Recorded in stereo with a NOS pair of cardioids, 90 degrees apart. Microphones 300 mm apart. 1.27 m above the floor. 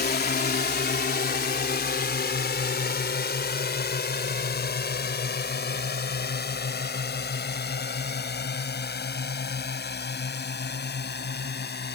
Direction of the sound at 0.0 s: 30° left.